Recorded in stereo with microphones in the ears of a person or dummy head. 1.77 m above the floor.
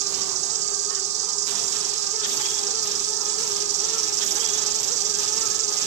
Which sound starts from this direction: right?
An insect, at 0.0 s.